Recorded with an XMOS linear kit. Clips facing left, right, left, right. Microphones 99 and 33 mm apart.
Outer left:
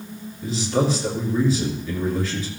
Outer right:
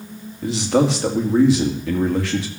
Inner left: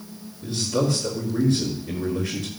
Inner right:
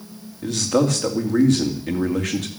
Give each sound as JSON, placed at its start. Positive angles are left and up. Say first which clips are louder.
{"t": 0.4, "sound": "a man speaking", "louder": "outer right 4 dB, inner right 4 dB", "side_deg": -85, "distance_m": 2.5}